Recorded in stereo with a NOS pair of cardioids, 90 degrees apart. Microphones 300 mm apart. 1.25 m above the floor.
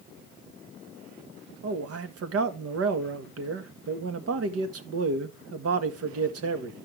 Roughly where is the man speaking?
Ahead right.